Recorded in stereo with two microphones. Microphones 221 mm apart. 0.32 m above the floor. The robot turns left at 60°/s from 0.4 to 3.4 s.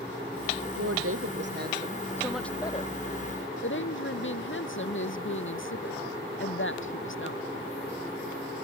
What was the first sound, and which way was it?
A woman speaking, 85° right.